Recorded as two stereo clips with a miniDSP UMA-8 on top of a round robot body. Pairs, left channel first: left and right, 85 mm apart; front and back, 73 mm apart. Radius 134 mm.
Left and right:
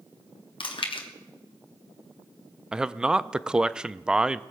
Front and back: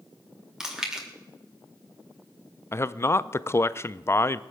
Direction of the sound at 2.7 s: 15° right.